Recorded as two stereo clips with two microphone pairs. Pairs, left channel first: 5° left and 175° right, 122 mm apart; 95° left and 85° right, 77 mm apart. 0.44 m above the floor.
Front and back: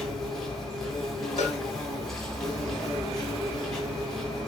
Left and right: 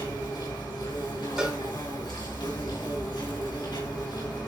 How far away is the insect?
About 5 m.